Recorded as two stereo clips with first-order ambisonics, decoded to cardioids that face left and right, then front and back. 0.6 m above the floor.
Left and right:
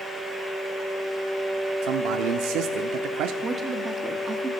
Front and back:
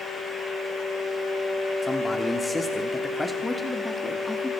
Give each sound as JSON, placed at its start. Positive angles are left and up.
{"t": 1.8, "sound": "a man speaking", "azimuth_deg": -80, "distance_m": 1.0}
{"t": 3.4, "sound": "a woman speaking", "azimuth_deg": -60, "distance_m": 1.2}